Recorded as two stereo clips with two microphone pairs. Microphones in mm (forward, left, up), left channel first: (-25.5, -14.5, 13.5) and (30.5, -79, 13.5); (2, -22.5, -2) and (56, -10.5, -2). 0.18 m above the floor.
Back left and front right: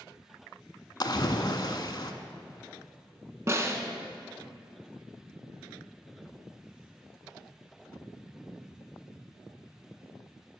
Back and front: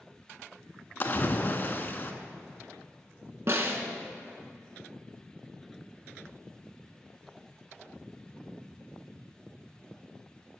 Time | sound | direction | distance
1.0 | a splash | 150° left | 0.6 m
3.5 | a snare drum | 5° right | 0.9 m